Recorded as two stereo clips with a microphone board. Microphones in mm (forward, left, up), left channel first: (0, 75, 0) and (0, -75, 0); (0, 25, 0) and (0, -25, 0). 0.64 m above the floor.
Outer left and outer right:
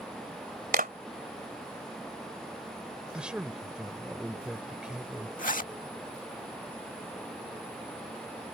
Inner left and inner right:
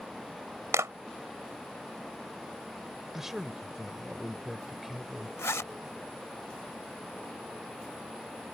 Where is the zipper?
60° left (ahead or behind).